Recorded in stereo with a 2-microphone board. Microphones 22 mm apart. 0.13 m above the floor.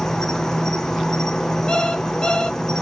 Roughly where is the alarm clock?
Left.